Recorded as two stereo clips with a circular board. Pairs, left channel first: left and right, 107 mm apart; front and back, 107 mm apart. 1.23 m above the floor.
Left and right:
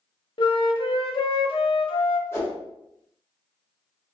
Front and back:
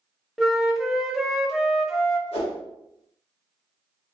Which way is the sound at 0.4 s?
90° left.